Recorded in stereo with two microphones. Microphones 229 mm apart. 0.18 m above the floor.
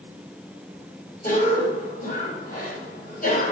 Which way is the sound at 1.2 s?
40° left (ahead or behind).